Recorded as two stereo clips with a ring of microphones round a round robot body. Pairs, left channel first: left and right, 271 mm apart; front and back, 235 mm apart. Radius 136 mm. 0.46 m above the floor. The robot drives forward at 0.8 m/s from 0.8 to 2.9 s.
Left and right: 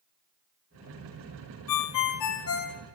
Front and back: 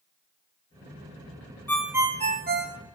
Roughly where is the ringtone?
Left.